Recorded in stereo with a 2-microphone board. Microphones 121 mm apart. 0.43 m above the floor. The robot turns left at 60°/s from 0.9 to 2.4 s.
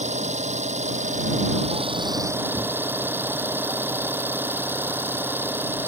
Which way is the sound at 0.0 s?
75° right.